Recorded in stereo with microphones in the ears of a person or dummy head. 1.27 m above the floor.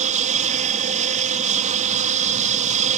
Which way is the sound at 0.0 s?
40° right (ahead or behind).